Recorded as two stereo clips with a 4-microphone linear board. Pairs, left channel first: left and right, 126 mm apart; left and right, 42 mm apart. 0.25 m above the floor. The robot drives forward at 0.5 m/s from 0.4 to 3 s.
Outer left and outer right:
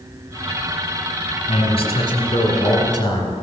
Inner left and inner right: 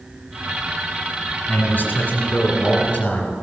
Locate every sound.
1.5 s a man speaking: 45° left (ahead or behind), 1.9 m; by 3.3 s 35° left (ahead or behind), 2.5 m